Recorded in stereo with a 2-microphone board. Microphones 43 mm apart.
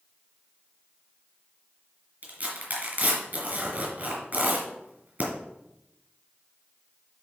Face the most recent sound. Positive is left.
turn(degrees=-45)  # may be behind; listen again after turning